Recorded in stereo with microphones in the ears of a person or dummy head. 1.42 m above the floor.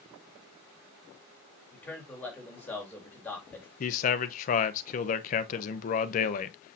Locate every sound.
1.7 s a man speaking: 10° left (ahead or behind), 3.5 m
3.8 s a man speaking: 45° left (ahead or behind), 0.8 m